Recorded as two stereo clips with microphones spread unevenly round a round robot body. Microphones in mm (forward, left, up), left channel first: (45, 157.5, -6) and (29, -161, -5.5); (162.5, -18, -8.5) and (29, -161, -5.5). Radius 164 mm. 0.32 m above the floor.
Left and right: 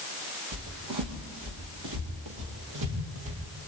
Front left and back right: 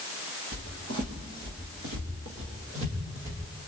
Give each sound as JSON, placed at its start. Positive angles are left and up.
{"t": 0.5, "sound": "footsteps", "azimuth_deg": -135, "distance_m": 6.5}